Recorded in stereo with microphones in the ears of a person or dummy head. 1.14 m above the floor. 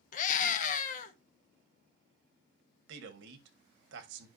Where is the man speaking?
60° right (ahead or behind), 1.8 m.